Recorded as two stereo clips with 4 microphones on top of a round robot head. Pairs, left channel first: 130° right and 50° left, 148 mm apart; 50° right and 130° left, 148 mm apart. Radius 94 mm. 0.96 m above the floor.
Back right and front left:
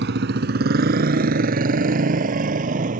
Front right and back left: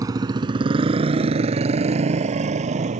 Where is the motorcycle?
65° left; by 3.0 s 85° left.